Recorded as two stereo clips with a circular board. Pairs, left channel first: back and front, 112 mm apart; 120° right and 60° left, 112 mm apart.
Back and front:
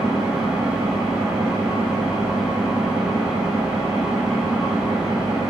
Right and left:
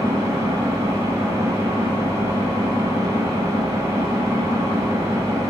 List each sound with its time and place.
0.0 s an engine running: 80° left, 0.9 m